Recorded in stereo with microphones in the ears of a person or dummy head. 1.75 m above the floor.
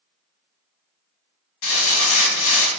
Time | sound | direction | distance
1.6 | crumpling | 75° left (ahead or behind) | 1.5 m